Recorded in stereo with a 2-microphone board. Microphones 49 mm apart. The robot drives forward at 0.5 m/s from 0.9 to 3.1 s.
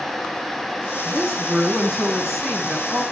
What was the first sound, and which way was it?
A woman speaking, 10° left (ahead or behind).